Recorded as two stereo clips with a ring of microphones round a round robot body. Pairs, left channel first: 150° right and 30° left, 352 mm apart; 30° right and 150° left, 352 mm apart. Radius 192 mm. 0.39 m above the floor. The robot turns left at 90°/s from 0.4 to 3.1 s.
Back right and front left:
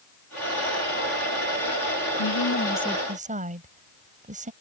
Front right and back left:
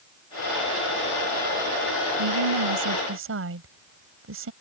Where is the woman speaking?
Straight behind; by 4.5 s 100° left.